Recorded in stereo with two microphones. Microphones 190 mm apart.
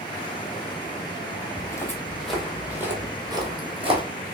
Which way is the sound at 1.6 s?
20° left (ahead or behind).